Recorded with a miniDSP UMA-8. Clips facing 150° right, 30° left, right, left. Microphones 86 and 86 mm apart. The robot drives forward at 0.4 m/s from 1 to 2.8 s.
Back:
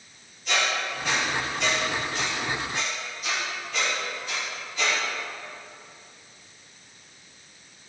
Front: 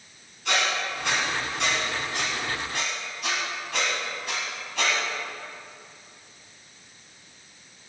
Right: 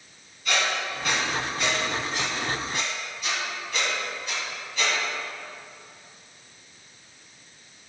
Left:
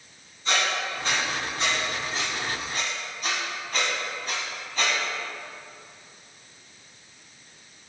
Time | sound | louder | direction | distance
0.5 | a squeak | even, even | 30° left | 2 m